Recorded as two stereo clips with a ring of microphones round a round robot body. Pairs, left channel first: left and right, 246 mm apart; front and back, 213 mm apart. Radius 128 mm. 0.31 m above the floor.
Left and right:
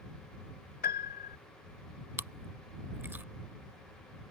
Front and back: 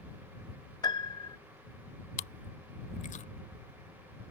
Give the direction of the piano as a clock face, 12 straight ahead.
10 o'clock.